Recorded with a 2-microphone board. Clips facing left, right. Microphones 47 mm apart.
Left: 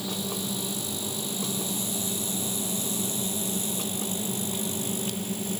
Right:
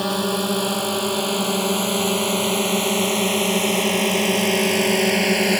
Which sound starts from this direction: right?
A drone, at 0.0 s.